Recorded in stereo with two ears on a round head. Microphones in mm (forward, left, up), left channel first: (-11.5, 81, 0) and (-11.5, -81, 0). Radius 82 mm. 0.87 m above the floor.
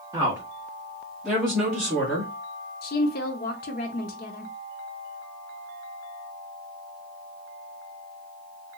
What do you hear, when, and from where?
0.1 s a woman speaking: 20° right (ahead or behind), 1.3 m; by 2.3 s 5° left (ahead or behind), 2 m
2.8 s a woman speaking: 50° left (ahead or behind), 0.6 m